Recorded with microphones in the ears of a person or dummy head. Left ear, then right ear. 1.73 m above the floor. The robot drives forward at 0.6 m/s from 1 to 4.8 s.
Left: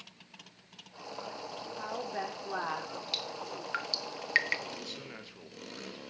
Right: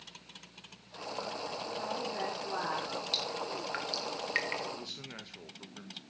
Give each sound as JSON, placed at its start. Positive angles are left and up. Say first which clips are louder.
{"t": 1.8, "sound": "a woman speaking", "louder": "left 1 dB", "side_deg": 70, "distance_m": 5.0}
{"t": 3.1, "sound": "dripping", "louder": "right 2 dB", "side_deg": 15, "distance_m": 1.5}
{"t": 4.7, "sound": "a man speaking", "louder": "even", "side_deg": 15, "distance_m": 2.0}